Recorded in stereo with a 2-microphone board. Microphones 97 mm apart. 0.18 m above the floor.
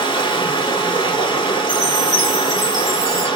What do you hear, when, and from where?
0.0 s running water: 55° left (ahead or behind), 1.2 m
1.7 s a chime: 35° right (ahead or behind), 2 m